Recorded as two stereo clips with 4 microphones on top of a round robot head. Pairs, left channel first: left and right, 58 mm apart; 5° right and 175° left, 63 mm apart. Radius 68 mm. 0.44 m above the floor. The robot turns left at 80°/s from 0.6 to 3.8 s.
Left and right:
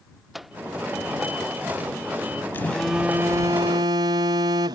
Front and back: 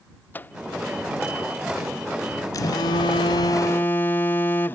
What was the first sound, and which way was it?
A microwave, 5° right.